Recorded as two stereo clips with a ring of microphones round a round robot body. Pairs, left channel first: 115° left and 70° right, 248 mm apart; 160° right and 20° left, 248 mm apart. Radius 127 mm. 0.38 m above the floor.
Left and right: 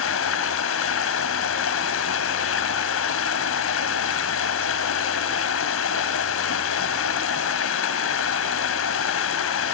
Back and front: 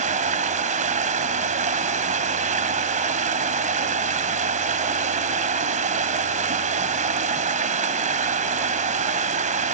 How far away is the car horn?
No car horn in this recording.